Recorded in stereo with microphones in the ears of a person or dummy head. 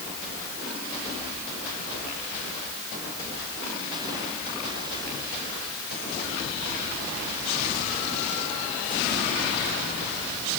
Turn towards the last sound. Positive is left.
No sound to turn to.